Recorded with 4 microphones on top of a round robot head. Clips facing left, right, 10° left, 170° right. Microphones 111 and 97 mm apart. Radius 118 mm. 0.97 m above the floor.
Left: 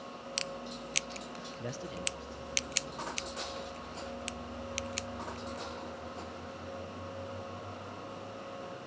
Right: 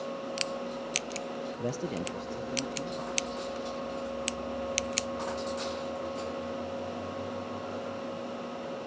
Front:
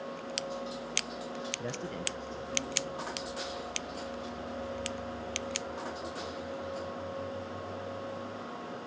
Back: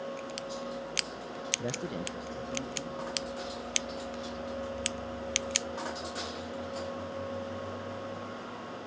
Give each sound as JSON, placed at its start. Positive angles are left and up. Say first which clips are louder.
{"t": 1.6, "sound": "a man speaking", "louder": "right 6 dB, back 2 dB", "azimuth_deg": -105, "distance_m": 0.5}